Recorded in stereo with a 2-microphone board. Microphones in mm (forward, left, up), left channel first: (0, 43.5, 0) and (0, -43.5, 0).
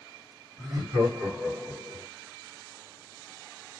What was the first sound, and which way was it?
Laughter, 45° right (ahead or behind).